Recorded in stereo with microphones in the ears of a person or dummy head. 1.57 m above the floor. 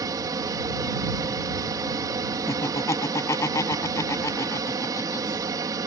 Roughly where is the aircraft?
Right.